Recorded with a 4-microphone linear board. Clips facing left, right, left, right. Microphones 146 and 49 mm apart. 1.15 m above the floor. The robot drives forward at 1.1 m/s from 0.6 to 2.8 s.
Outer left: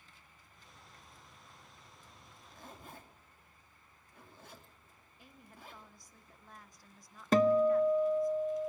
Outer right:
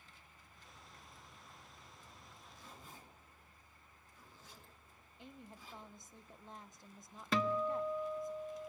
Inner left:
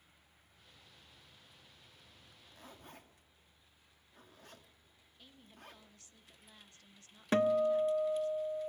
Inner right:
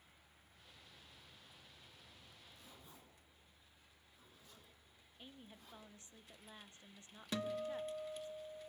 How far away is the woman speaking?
About 1.0 m.